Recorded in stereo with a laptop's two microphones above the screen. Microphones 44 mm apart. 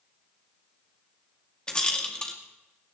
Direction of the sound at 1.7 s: 20° left (ahead or behind).